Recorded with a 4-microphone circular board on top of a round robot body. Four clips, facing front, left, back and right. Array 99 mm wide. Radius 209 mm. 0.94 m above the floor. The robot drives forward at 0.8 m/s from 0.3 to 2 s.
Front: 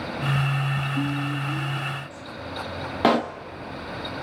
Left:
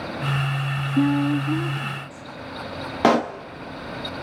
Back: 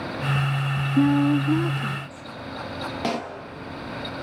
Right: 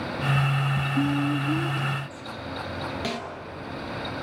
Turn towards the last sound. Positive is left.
turn(degrees=60)